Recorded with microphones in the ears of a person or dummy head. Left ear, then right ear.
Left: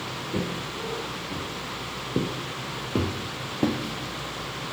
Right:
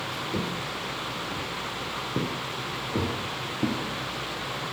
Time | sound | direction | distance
0.3 | footsteps | 15° right (ahead or behind) | 1.6 m